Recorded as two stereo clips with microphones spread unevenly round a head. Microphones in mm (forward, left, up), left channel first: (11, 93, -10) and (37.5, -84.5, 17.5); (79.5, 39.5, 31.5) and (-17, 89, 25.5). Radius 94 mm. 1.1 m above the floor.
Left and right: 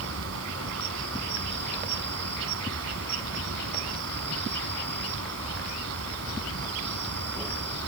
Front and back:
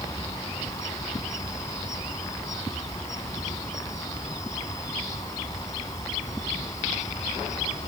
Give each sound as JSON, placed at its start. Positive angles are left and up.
{"t": 0.0, "sound": "an insect", "azimuth_deg": -100}